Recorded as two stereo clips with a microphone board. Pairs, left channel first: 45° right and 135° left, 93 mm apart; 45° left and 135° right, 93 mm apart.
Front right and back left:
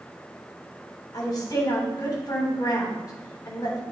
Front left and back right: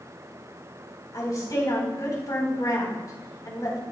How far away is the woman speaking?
About 3.5 m.